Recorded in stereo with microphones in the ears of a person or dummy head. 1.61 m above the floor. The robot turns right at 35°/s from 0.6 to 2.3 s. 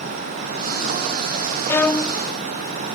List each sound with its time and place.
1.7 s a violin: 15° left (ahead or behind); by 2.2 s centre (ahead or behind)